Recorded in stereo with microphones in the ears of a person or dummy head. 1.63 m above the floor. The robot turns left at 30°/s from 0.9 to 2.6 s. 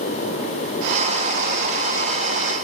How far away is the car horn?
No car horn in this recording.